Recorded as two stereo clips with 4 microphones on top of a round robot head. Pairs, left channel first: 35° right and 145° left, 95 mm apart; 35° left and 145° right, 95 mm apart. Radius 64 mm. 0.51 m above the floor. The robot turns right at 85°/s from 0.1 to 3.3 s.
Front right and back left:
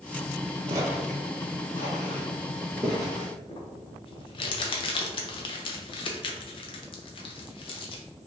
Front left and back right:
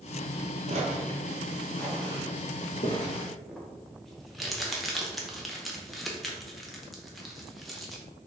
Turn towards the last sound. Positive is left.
turn(degrees=-55)